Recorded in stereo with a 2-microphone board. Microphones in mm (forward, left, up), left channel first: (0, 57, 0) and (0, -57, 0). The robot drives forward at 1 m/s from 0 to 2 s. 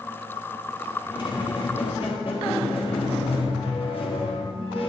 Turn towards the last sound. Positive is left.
turn(degrees=55)  # may be behind; listen again after turning